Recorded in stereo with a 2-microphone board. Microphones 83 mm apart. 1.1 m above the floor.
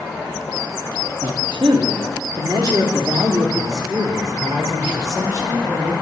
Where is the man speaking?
75° right (ahead or behind), 2 m; by 5.9 s 40° right (ahead or behind), 5 m.